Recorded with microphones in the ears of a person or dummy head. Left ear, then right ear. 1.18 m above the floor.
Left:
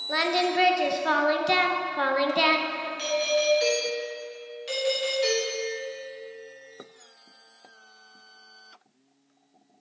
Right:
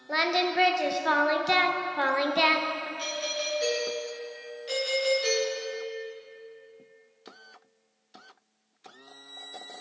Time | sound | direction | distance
0.1 | singing | centre (ahead or behind) | 0.5 m
3.0 | a doorbell | 30° left (ahead or behind) | 2.5 m